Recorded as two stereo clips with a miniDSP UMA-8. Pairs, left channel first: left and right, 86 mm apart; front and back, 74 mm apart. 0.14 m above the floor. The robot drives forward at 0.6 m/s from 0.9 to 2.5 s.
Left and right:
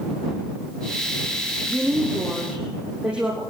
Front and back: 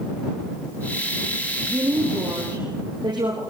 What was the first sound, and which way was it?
A woman speaking, 170° right.